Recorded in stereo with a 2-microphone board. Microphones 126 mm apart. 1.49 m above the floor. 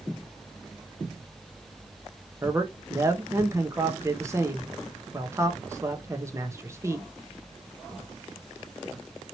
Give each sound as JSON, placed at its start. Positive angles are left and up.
{"t": 2.4, "sound": "a man speaking", "side_deg": -20, "distance_m": 0.9}